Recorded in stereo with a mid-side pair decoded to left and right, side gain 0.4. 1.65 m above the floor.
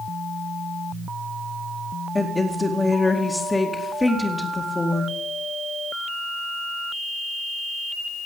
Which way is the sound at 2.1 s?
20° left.